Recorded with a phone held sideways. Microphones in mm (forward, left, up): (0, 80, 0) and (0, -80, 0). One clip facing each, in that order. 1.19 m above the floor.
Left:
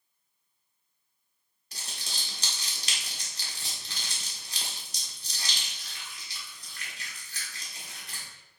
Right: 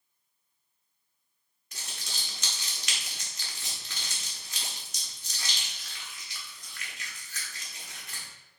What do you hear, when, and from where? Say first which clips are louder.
1.7 s crumpling: left 1 dB; 30° left (ahead or behind), 1.1 m